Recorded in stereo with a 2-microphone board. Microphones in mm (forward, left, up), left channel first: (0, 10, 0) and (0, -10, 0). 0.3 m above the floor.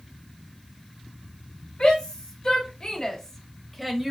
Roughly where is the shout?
Left.